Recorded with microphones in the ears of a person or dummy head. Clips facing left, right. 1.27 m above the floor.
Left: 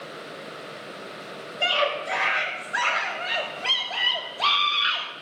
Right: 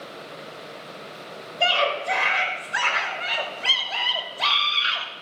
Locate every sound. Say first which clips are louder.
1.6 s a scream: right 2 dB; 55° right (ahead or behind), 5.5 m; by 5.1 s 30° right (ahead or behind), 5.5 m